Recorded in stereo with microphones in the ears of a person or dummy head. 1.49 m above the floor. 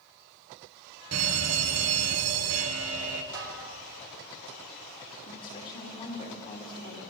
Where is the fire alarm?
75° right (ahead or behind), 2 m.